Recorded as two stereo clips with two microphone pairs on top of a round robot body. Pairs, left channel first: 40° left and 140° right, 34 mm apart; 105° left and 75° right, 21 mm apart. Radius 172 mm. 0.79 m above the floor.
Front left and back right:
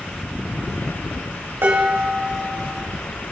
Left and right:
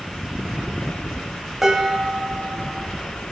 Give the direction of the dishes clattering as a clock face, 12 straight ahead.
5 o'clock.